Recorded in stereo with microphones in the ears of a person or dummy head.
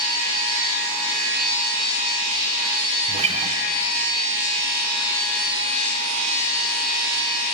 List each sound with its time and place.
3.1 s a guitar: 30° right (ahead or behind), 1.0 m